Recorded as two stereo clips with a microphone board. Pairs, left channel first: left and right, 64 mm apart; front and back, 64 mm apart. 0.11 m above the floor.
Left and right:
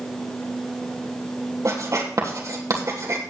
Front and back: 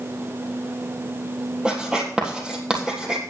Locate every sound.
1.6 s writing: 105° right, 3 m